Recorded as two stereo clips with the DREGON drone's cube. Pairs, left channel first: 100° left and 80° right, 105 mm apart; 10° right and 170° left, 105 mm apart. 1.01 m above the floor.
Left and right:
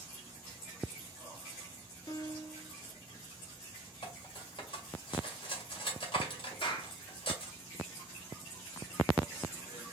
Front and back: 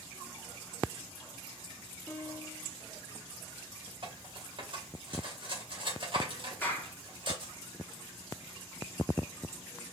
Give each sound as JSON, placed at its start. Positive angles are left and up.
{"t": 2.1, "sound": "a piano", "azimuth_deg": 55, "distance_m": 0.7}
{"t": 4.0, "sound": "cutlery clinking", "azimuth_deg": 135, "distance_m": 2.0}
{"t": 6.6, "sound": "a clap", "azimuth_deg": 60, "distance_m": 1.5}